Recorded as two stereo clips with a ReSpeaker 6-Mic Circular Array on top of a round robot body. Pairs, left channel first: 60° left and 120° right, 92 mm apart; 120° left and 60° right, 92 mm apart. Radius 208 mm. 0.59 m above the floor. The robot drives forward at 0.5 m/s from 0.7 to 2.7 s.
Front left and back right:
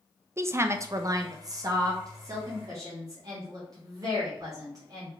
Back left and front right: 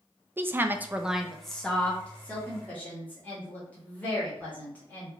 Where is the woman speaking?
105° right, 0.6 m; by 5.1 s 170° right, 1.2 m.